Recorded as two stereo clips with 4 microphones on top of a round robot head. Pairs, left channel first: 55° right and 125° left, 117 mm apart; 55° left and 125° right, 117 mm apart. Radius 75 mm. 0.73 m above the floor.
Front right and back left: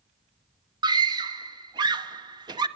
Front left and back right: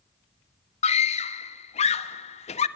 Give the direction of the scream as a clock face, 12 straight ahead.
10 o'clock.